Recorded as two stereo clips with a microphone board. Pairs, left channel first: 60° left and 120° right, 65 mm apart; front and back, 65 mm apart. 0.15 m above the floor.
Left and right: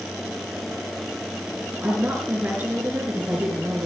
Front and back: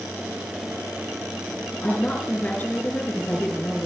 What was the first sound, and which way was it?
A woman speaking, 65° right.